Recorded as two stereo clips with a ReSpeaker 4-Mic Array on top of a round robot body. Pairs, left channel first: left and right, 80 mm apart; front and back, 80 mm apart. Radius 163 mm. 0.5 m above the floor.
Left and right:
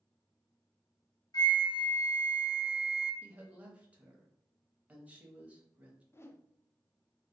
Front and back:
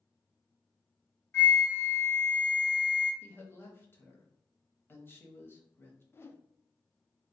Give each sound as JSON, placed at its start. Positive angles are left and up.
{"t": 1.3, "sound": "a flute", "azimuth_deg": 60, "distance_m": 1.3}
{"t": 3.2, "sound": "a woman speaking", "azimuth_deg": -30, "distance_m": 1.0}
{"t": 6.1, "sound": "a whoosh", "azimuth_deg": 45, "distance_m": 0.5}